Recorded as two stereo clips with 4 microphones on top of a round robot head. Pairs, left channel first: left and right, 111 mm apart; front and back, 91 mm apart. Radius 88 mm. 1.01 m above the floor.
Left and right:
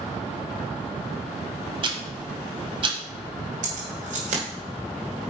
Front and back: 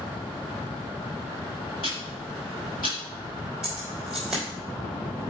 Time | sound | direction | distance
1.8 | ticking | 55° right | 1.5 m
3.6 | keys jangling | 95° right | 3 m